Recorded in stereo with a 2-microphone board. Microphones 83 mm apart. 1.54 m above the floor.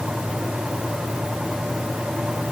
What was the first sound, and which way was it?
Only background noise.